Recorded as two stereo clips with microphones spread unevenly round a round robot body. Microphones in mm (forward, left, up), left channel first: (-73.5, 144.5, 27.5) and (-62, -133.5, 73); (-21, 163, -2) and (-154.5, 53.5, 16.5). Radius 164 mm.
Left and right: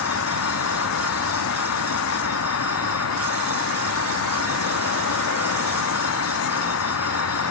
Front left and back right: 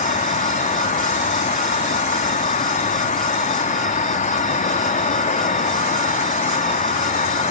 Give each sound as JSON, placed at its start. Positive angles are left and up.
{"t": 0.0, "sound": "an insect", "azimuth_deg": 75, "distance_m": 0.8}